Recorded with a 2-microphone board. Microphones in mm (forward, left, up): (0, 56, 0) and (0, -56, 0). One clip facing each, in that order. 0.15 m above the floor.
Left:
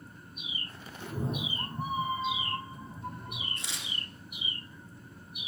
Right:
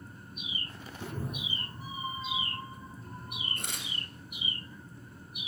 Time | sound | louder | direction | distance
1.0 | a cat meowing | left 4 dB | 10° right (ahead or behind) | 0.5 m
3.6 | tearing paper | right 1 dB | 50° right (ahead or behind) | 1.5 m